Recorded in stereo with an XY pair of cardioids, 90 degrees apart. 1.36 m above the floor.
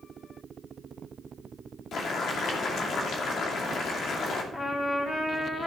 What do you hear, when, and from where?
1.9 s boiling: 70° left, 2.5 m
4.5 s a trumpet: 25° left, 3 m